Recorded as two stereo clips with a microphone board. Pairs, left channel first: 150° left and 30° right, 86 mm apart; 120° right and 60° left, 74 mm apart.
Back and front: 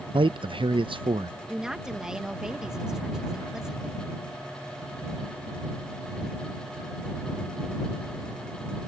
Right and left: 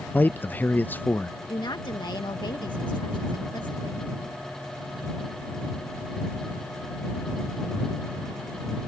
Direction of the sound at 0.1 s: 55° right.